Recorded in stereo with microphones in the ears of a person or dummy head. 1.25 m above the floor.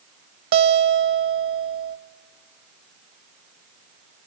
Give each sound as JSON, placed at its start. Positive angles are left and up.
{"t": 0.5, "sound": "a guitar", "side_deg": -65, "distance_m": 1.1}